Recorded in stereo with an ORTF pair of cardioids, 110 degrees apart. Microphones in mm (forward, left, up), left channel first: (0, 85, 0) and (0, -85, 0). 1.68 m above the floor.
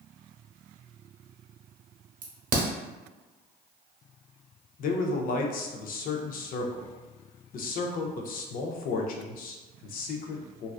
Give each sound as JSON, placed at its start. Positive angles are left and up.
{"t": 2.2, "sound": "a crack", "azimuth_deg": -50, "distance_m": 0.8}
{"t": 4.8, "sound": "a man speaking", "azimuth_deg": 55, "distance_m": 0.5}